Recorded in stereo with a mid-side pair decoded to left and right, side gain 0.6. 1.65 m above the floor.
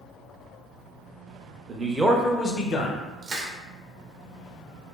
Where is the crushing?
40° right, 0.8 m.